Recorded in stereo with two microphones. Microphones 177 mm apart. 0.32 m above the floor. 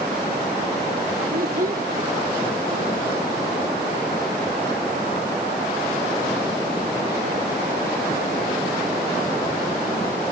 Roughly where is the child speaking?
Right.